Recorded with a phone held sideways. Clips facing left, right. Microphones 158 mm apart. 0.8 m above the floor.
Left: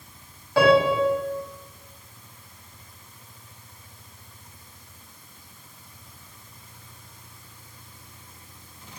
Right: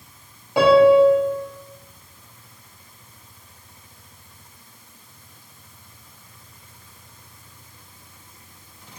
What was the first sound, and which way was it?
A piano, 20° right (ahead or behind).